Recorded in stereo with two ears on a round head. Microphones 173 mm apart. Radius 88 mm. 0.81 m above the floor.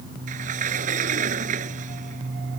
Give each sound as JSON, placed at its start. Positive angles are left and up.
{"t": 0.3, "sound": "a sliding door", "side_deg": -40}